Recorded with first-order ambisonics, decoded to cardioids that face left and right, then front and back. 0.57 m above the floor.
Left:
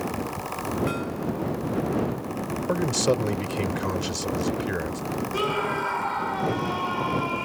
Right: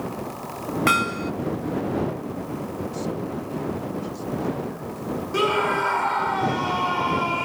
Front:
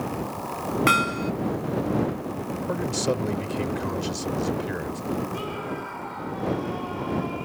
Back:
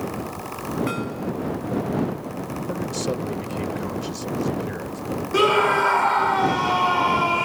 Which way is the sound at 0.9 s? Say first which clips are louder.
Right 8 dB, front 7 dB; 50° right.